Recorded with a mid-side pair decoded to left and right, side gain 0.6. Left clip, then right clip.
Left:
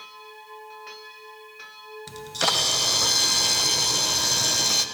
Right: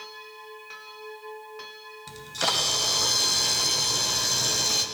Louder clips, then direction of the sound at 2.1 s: Left 2 dB; 20° left.